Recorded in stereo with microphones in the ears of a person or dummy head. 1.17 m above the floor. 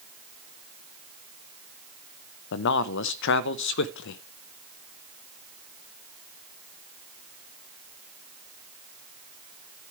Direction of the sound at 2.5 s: 65° left (ahead or behind).